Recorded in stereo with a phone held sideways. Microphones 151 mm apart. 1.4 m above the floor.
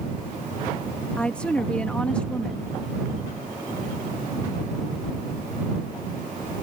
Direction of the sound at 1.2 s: 5° left (ahead or behind).